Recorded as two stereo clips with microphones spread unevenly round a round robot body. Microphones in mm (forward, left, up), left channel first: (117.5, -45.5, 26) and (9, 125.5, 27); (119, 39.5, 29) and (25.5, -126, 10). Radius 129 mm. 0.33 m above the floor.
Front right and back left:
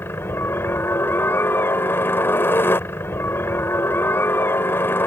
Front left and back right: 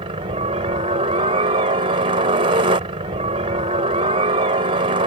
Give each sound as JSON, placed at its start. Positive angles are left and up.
{"t": 0.0, "sound": "a helicopter", "azimuth_deg": -130}